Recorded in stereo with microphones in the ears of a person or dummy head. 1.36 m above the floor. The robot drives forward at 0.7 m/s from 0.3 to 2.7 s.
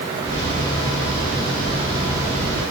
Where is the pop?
No pop in this recording.